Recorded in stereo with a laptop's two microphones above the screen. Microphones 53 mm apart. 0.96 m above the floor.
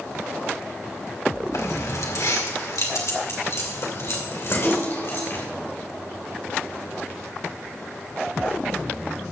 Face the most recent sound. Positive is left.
turn(degrees=50)  # may be behind; listen again after turning